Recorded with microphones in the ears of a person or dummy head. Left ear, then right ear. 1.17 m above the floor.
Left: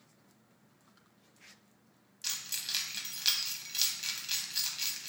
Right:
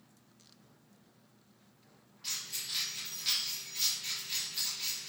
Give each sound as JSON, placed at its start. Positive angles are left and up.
{"t": 2.2, "sound": "keys jangling", "side_deg": 60, "distance_m": 0.7}